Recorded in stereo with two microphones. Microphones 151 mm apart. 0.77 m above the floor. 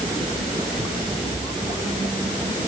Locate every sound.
Only background noise.